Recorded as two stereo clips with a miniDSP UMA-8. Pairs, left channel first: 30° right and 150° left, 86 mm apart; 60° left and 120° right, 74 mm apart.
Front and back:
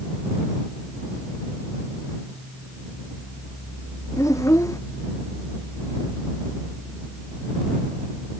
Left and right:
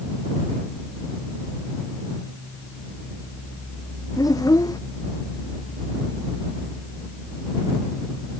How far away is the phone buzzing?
I don't hear a phone buzzing.